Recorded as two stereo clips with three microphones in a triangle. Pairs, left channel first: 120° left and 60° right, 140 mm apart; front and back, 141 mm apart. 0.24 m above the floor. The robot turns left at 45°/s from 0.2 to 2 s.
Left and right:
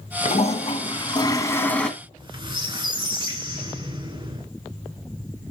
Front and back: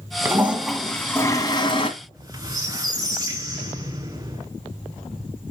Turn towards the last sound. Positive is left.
turn(degrees=-115)